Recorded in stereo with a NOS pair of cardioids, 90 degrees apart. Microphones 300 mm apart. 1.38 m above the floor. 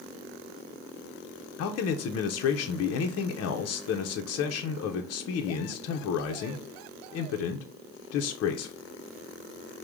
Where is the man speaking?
55° left, 0.7 m.